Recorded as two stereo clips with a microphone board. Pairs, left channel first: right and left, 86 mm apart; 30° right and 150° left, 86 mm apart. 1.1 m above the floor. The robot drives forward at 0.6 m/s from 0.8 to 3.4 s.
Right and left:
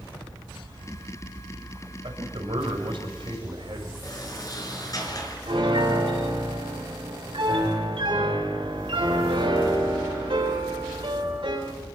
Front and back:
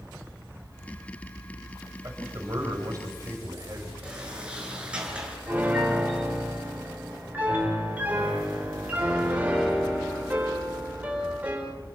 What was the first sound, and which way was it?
A man speaking, 95° left.